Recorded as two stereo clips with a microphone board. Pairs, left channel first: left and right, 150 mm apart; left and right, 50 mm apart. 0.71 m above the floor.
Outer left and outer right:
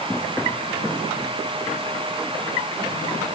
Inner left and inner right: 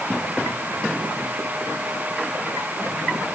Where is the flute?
No flute in this recording.